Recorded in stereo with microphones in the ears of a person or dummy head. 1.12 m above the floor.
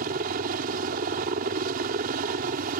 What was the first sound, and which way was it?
A helicopter, 50° right (ahead or behind).